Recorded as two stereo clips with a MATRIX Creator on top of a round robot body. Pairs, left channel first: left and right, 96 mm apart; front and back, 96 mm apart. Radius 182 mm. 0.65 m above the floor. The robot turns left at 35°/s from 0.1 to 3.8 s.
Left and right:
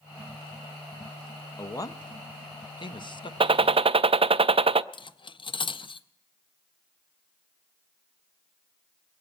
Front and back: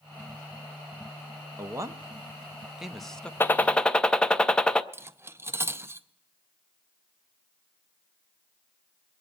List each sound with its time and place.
1.6 s a man speaking: 135° left, 1.1 m; by 3.3 s 75° left, 1.1 m
3.4 s a gunshot: 65° right, 0.5 m; by 4.8 s 80° right, 0.5 m
4.9 s cutlery clinking: 115° left, 0.6 m